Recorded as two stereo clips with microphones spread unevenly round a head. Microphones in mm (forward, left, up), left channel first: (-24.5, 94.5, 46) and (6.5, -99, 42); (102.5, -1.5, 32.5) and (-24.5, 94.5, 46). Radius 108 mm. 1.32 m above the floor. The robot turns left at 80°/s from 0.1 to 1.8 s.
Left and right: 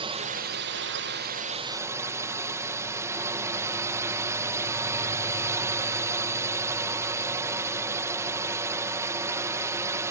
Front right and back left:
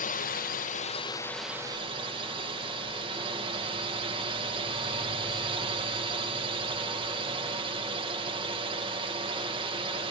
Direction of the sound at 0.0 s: 20° right.